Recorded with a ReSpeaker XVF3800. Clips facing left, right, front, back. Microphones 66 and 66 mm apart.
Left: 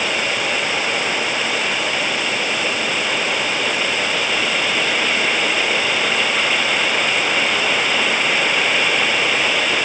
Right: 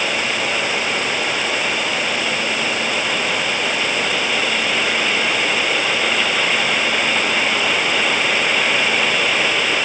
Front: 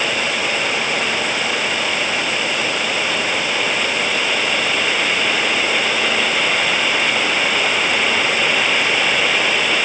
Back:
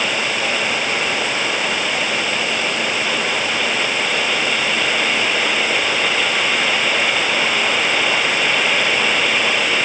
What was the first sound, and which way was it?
Only background noise.